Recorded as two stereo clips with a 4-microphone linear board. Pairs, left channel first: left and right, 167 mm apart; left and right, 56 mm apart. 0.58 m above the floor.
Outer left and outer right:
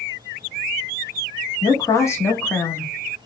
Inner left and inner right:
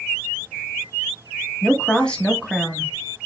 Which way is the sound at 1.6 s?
20° left (ahead or behind).